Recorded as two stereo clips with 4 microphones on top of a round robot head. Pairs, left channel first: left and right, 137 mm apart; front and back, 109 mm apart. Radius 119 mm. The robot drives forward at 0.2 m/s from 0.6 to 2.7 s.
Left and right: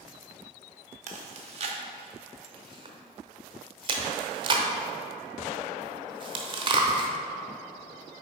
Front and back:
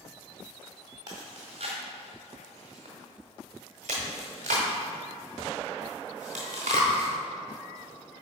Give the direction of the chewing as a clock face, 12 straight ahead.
4 o'clock.